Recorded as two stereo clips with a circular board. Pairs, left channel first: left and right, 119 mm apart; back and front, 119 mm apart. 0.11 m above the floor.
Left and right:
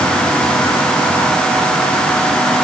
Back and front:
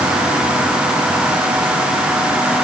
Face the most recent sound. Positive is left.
No sound to turn to.